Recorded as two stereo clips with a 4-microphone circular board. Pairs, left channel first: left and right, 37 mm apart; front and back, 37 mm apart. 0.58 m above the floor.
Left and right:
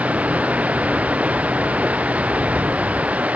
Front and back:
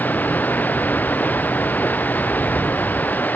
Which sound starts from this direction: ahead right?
Running water, at 0.0 s.